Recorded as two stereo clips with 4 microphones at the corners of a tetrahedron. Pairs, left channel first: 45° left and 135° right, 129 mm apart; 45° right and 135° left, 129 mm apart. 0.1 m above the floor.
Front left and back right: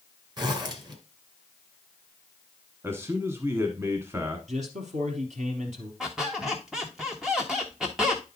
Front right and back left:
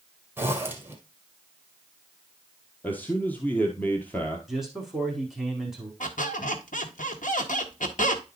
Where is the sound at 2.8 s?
100° right, 1.1 m.